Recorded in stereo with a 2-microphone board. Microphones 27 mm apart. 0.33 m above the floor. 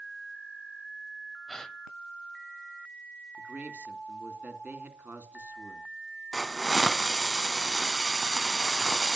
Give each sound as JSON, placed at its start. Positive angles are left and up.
{"t": 1.5, "sound": "a gasp", "side_deg": 25, "distance_m": 1.5}
{"t": 3.4, "sound": "a man speaking", "side_deg": -65, "distance_m": 3.0}
{"t": 6.3, "sound": "a hiss", "side_deg": 15, "distance_m": 1.2}